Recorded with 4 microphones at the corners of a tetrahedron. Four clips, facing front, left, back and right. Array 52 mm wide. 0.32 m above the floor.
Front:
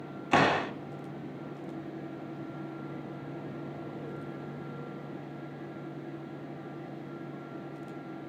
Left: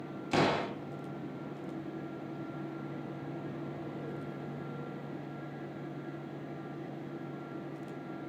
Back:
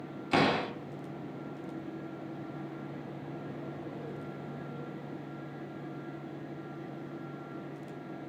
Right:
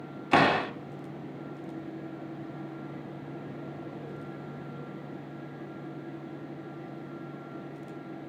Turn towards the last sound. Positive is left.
turn(degrees=-60)